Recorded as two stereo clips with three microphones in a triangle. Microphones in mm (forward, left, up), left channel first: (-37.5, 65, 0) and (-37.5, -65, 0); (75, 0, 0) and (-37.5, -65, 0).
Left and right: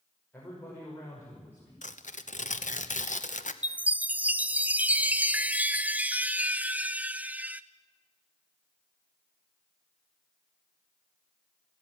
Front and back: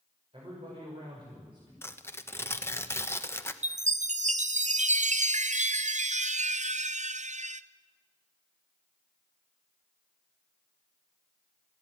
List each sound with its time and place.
0.3 s a man speaking: 165° left, 6 m
1.8 s tearing paper: 100° left, 1.0 m
3.6 s a chime: 170° right, 0.5 m